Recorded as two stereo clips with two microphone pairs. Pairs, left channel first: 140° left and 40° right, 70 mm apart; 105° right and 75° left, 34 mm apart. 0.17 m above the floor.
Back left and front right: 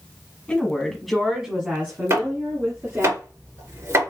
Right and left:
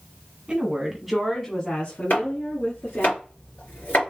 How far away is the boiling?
I don't hear boiling.